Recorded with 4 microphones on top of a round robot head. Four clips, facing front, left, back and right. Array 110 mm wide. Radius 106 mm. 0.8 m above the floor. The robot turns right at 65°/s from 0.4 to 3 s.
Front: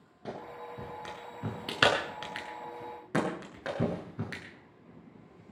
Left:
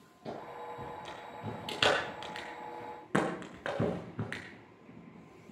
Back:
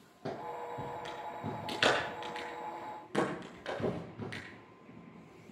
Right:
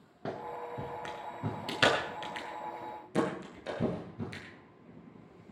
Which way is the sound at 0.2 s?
105° right.